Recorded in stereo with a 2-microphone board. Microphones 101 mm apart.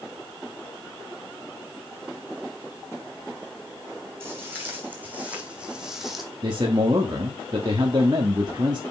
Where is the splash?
I don't hear a splash.